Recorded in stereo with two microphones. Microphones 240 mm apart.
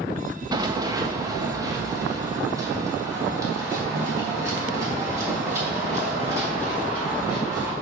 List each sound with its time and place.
0.5 s running footsteps: 15° right (ahead or behind), 0.8 m; by 7.7 s 10° right (ahead or behind), 5.5 m